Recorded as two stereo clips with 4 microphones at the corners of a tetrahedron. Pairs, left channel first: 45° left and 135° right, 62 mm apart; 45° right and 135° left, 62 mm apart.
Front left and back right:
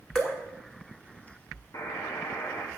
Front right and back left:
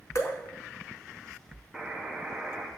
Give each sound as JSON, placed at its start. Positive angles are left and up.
{"t": 0.1, "sound": "dripping", "azimuth_deg": -30, "distance_m": 0.8}
{"t": 1.7, "sound": "a buzzer", "azimuth_deg": 60, "distance_m": 0.7}